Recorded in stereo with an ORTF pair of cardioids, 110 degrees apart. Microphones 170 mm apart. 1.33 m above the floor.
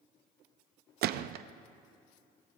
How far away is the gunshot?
About 0.5 m.